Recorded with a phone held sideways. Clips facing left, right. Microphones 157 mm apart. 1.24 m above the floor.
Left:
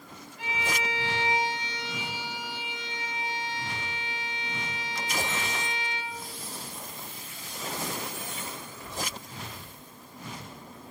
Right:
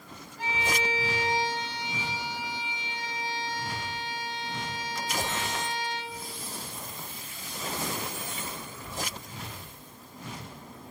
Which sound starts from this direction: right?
A violin, at 0.4 s.